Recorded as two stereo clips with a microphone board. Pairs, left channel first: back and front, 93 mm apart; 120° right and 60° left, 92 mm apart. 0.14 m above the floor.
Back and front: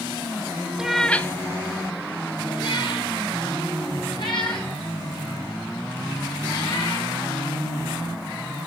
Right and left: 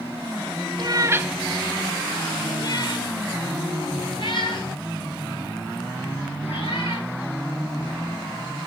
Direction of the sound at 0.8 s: 80° left.